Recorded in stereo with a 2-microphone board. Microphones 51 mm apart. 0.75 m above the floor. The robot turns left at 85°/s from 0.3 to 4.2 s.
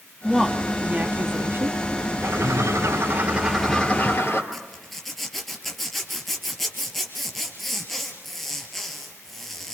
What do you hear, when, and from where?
0.2 s a woman speaking: 10° left, 1.0 m; by 1.8 s 115° right, 1.0 m
2.2 s a bird: 65° right, 3 m; by 4.4 s 130° left, 3 m
4.5 s a zipper: centre (ahead or behind), 3.5 m